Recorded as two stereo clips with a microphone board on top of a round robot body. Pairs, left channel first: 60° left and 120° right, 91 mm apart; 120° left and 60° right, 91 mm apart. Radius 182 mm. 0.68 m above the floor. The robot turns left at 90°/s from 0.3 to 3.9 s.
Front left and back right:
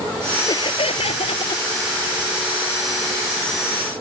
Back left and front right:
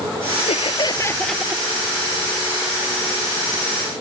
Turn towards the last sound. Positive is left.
turn(degrees=165)